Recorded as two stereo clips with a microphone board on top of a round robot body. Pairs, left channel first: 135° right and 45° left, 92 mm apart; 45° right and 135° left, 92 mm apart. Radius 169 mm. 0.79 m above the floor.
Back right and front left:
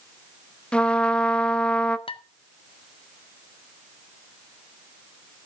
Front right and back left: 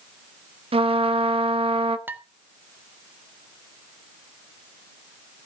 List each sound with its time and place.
0.7 s a trumpet: 145° left, 1.2 m
2.1 s dishes clattering: 155° right, 1.2 m